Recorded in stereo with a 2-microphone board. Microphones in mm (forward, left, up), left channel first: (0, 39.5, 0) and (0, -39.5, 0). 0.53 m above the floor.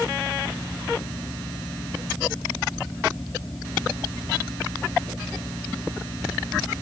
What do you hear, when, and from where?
Only background noise.